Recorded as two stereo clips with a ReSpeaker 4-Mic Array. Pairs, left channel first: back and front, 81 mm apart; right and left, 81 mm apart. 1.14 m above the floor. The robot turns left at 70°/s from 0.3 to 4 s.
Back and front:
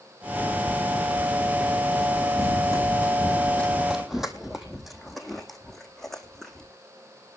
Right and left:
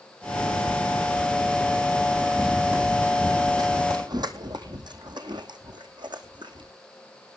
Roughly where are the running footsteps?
Behind.